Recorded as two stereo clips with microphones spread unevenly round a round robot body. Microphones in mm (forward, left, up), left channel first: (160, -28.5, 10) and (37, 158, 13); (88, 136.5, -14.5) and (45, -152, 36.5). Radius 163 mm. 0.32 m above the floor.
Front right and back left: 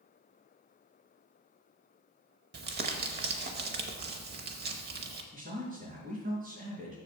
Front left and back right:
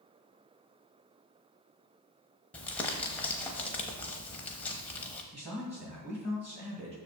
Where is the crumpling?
155° left, 0.6 m.